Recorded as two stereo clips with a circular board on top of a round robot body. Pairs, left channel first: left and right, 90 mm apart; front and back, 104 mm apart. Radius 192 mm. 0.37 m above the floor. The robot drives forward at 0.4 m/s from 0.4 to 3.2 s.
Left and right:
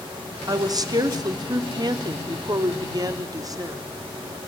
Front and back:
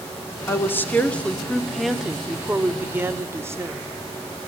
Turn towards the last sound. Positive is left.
turn(degrees=-120)